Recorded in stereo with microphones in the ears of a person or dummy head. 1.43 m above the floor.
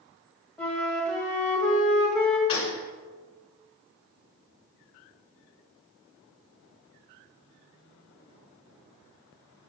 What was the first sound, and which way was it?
A flute, 5° left (ahead or behind).